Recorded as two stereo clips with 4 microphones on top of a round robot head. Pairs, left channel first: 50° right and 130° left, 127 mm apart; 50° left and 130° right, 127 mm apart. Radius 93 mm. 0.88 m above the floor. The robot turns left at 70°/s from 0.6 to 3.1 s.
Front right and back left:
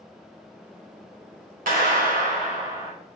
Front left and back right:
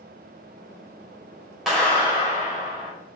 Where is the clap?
145° left, 2 m; by 2.9 s 55° left, 2 m.